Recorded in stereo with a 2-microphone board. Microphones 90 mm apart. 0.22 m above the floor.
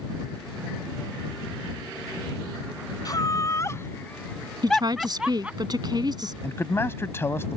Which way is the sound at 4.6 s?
50° right (ahead or behind).